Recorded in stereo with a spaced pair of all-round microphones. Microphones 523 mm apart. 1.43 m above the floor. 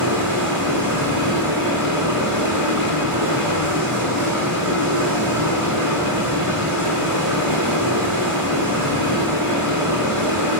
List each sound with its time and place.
0.0 s running water: 35° right (ahead or behind), 9 m